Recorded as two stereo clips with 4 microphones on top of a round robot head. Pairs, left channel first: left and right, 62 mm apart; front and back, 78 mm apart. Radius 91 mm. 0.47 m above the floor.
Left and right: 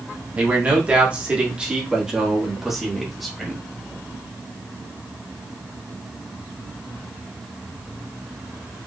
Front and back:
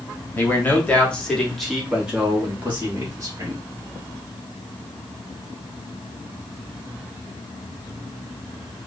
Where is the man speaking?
40° right, 1.4 m; by 3.6 s 170° left, 1.5 m.